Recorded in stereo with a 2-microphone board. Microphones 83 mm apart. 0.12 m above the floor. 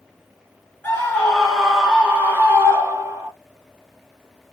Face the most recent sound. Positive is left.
turn(degrees=-40)  # may be behind; listen again after turning